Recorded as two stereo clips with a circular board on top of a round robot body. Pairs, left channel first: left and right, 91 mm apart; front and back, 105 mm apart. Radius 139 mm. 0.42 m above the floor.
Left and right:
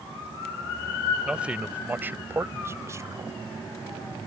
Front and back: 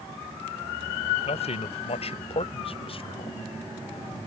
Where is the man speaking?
10° right; by 3.4 s 35° right.